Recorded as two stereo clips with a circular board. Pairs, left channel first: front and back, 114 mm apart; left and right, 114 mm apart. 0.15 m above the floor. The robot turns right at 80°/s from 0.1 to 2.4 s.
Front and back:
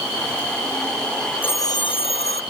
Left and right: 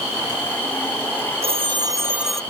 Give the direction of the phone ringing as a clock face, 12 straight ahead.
2 o'clock.